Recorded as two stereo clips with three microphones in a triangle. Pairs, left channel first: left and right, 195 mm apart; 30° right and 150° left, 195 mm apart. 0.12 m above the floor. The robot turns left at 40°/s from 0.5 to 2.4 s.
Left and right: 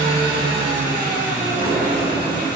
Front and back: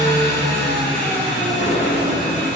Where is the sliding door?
45° right, 1.0 m; by 2.5 s 80° right, 1.0 m.